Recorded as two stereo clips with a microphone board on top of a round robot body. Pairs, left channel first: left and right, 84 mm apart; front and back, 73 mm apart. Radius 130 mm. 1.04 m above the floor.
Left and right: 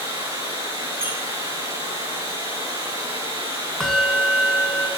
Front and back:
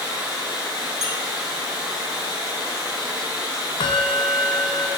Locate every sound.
0.0 s running water: 100° right, 8 m
1.0 s a squeak: 95° right, 6 m
3.8 s a bell: 5° left, 2.5 m